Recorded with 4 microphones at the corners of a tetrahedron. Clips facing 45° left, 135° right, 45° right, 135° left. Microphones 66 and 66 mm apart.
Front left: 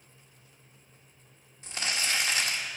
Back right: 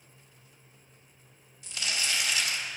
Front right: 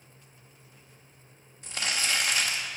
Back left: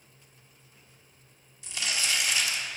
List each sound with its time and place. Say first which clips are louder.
1.6 s crumpling: front left 1 dB, front right 1 dB; 5° right, 1.8 m